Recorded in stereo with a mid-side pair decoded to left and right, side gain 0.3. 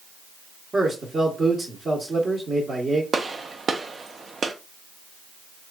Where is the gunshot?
60° right, 0.6 m.